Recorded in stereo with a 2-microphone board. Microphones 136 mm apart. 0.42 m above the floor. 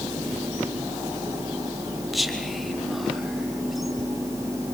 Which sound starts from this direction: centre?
Whispering, at 2.1 s.